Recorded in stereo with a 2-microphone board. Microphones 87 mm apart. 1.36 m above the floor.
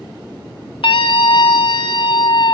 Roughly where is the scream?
Left.